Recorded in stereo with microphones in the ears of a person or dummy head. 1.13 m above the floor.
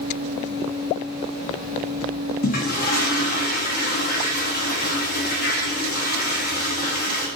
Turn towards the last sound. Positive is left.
turn(degrees=45)  # may be behind; listen again after turning